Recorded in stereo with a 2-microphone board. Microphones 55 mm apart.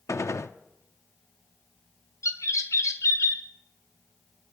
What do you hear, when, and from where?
0.1 s a gunshot: 70° left (ahead or behind), 0.7 m
2.2 s a bird: 80° left, 2.0 m